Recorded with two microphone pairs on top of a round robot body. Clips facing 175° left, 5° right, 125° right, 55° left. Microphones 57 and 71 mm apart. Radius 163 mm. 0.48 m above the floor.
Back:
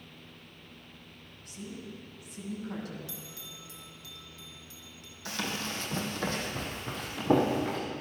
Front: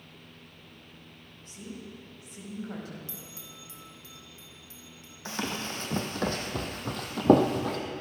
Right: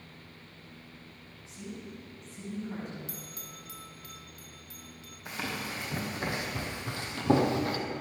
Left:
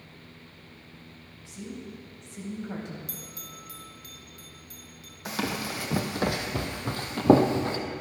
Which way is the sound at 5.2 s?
50° left.